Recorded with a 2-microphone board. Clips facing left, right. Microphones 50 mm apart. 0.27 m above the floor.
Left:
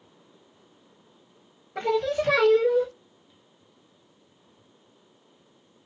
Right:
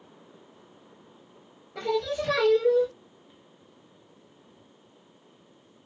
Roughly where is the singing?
Left.